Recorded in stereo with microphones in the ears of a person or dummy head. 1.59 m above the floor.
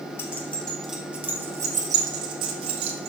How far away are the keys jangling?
About 1.4 m.